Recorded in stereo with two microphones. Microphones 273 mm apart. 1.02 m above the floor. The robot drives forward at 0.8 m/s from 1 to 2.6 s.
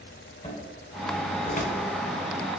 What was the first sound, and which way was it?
A cupboard door, 20° left (ahead or behind).